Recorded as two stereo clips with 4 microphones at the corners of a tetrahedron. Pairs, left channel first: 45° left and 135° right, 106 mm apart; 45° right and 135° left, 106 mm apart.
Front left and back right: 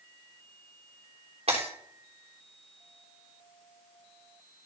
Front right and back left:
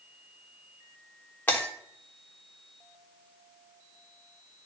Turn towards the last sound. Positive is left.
turn(degrees=-120)